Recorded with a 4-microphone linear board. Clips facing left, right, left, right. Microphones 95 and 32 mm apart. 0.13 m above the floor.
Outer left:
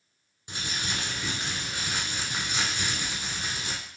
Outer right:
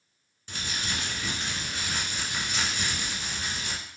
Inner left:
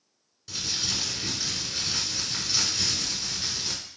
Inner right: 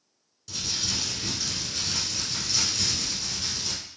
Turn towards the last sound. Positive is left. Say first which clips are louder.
# even, even
turn(degrees=15)  # may be behind; listen again after turning